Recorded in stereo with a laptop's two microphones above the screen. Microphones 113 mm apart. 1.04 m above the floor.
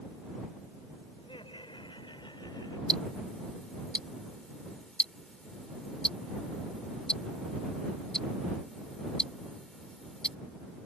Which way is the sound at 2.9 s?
10° left (ahead or behind).